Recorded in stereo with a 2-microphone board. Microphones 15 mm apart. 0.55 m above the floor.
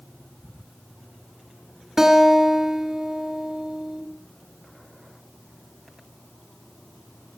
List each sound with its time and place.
2.0 s a guitar: 25° right (ahead or behind), 2.5 m